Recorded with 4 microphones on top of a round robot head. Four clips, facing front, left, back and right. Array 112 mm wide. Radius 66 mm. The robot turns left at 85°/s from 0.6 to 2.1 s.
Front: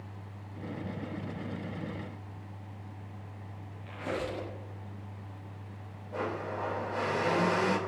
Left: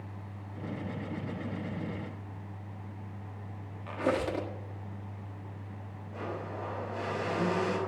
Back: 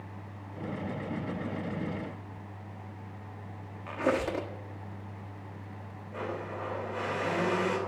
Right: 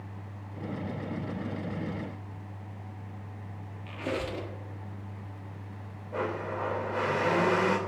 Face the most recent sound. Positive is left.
turn(degrees=-75)